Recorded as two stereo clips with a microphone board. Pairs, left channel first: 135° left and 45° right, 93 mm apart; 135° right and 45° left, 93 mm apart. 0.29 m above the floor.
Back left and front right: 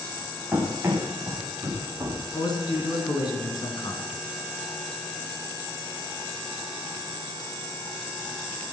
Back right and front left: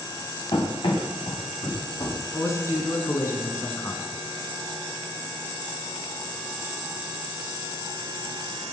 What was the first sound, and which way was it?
Running footsteps, 115° right.